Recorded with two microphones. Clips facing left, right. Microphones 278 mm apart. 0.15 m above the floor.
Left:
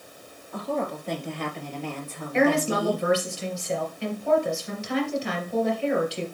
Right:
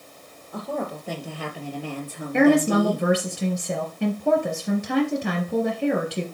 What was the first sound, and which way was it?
A woman speaking, centre (ahead or behind).